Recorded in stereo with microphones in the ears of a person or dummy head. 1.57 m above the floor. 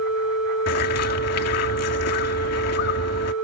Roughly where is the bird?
Left.